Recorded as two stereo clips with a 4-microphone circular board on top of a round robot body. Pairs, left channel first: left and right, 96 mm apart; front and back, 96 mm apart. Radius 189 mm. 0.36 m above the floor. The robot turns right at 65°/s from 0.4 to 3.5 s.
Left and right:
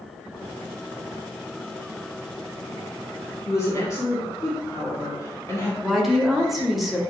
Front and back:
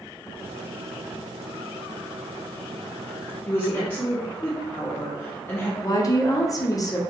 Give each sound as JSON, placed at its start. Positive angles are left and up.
{"t": 3.5, "sound": "a woman speaking", "azimuth_deg": 55, "distance_m": 1.4}
{"t": 5.8, "sound": "a woman speaking", "azimuth_deg": -5, "distance_m": 0.9}